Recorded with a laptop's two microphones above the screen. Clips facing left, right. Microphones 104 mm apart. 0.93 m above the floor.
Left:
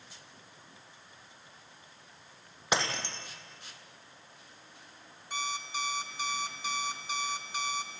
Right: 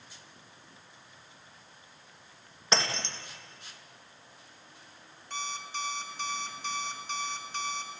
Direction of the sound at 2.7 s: 10° left (ahead or behind).